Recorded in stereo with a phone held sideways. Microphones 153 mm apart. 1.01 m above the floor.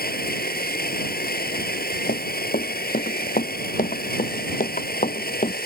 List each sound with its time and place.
0.0 s a machine running: 85° left
2.1 s running footsteps: 70° left (ahead or behind); by 5.6 s 55° left (ahead or behind)